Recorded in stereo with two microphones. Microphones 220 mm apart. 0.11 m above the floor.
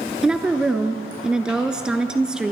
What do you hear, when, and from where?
0.2 s a woman speaking: 5° right (ahead or behind), 1.3 m